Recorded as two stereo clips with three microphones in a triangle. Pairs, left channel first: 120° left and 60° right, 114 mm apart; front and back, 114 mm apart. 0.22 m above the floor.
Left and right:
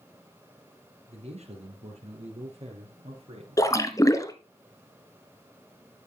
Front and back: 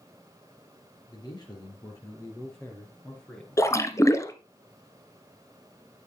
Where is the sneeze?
No sneeze in this recording.